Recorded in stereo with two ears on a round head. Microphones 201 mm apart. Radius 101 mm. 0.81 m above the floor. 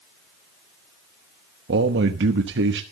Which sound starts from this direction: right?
A man speaking, at 1.7 s.